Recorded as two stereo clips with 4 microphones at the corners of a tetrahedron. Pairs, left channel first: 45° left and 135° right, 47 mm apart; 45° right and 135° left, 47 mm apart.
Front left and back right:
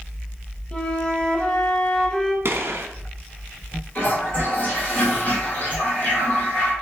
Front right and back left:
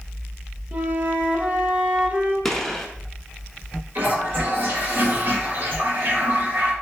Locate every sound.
0.7 s a flute: 100° left, 0.8 m
2.5 s a gunshot: 125° right, 0.7 m
4.0 s a toilet flushing: 90° left, 2.5 m